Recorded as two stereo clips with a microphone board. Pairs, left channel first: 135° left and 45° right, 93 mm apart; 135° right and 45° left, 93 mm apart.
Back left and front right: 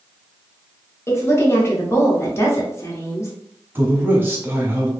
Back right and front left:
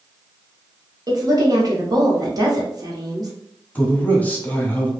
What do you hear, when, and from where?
1.1 s a woman speaking: 80° left, 1.1 m
3.8 s a man speaking: 85° right, 0.8 m